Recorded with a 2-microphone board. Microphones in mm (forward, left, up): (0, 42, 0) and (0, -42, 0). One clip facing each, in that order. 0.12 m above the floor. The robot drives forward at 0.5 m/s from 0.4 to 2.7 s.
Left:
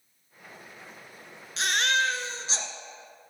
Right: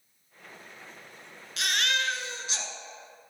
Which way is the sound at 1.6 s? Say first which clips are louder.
Left 4 dB; 30° left (ahead or behind).